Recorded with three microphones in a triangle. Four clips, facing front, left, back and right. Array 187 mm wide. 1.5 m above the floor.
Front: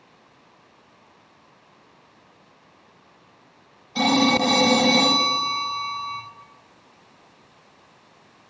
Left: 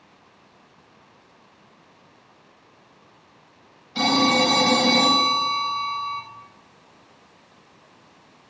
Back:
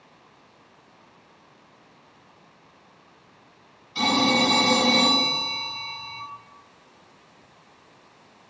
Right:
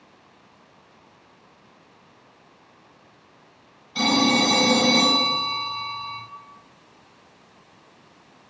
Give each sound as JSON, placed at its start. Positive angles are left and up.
{"t": 4.0, "sound": "a phone ringing", "azimuth_deg": 5, "distance_m": 4.5}